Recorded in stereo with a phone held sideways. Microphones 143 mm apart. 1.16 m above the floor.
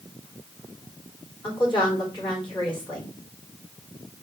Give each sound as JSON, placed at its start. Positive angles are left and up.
{"t": 1.4, "sound": "a woman speaking", "side_deg": 35, "distance_m": 3.0}